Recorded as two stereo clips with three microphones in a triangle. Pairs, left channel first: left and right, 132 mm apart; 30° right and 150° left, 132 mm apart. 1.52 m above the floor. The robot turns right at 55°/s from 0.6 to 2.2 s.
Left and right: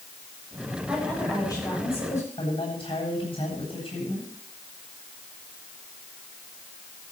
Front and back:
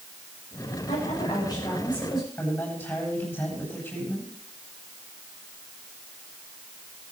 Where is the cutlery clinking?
I don't hear cutlery clinking.